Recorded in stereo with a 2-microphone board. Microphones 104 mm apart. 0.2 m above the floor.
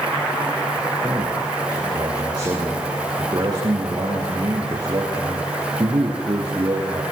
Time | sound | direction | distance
1.0 | a man speaking | 40° right (ahead or behind) | 5 m